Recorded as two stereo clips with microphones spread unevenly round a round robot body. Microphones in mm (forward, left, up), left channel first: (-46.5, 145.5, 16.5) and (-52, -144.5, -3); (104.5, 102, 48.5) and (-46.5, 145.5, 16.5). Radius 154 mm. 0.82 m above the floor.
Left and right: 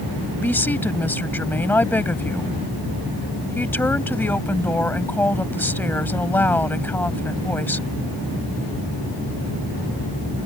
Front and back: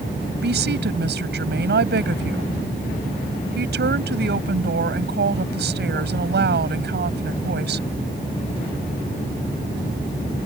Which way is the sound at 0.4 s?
175° left.